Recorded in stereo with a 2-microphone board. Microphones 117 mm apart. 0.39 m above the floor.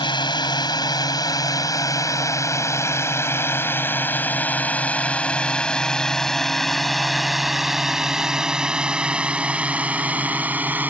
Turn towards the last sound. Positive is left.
turn(degrees=-15)  # may be behind; listen again after turning